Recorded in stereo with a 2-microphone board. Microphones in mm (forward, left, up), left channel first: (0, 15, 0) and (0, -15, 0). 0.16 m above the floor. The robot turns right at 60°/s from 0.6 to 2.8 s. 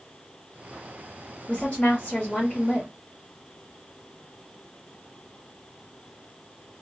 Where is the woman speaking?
70° left, 1.9 m; by 2.9 s 150° left, 1.9 m.